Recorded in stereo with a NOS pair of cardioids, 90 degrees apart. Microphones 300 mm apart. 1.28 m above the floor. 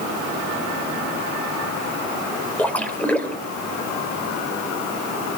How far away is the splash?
About 2.5 m.